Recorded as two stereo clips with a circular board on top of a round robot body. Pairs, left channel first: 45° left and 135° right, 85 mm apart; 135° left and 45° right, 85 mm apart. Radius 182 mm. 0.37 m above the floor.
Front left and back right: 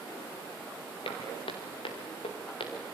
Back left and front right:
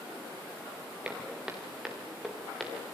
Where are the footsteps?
35° left, 3 m; by 2.7 s 45° left, 4 m.